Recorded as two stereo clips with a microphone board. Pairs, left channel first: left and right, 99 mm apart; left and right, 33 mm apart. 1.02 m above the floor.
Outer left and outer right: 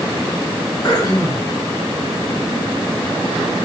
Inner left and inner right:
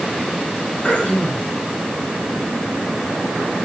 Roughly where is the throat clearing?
Left.